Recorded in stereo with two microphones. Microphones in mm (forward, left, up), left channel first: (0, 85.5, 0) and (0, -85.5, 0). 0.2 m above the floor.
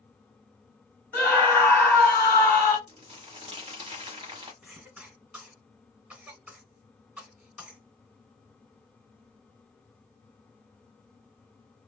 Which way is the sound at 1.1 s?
5° left (ahead or behind).